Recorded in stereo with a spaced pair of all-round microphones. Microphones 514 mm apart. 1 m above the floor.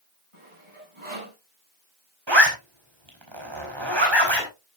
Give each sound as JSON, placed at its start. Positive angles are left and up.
{"t": 0.3, "sound": "sawing", "side_deg": -70, "distance_m": 7.5}
{"t": 2.3, "sound": "a zipper", "side_deg": -55, "distance_m": 4.5}